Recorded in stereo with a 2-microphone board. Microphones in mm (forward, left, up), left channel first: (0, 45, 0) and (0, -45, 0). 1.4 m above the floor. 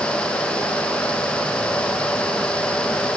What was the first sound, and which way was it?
Only background noise.